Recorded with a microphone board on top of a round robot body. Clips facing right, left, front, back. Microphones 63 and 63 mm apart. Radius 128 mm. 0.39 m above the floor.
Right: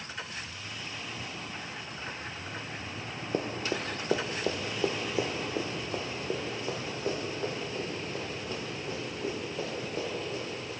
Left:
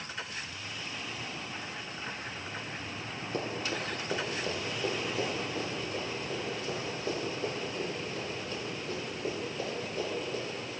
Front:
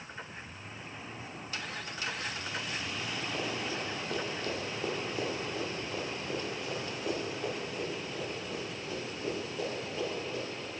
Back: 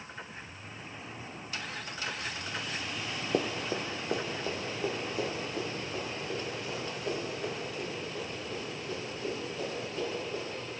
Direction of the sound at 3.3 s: 155° right.